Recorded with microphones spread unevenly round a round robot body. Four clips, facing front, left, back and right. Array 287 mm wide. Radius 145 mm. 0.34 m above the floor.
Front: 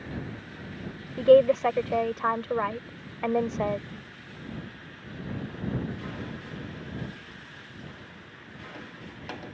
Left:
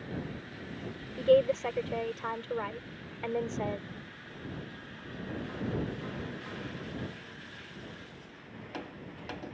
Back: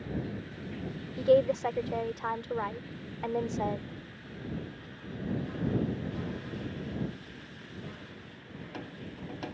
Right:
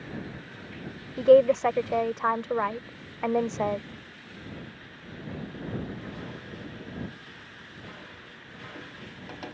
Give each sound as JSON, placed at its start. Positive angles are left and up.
{"t": 1.2, "sound": "a woman speaking", "azimuth_deg": -35}